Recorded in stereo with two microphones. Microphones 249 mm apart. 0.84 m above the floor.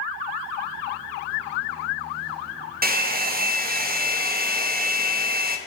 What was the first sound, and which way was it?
A hair dryer, 40° right (ahead or behind).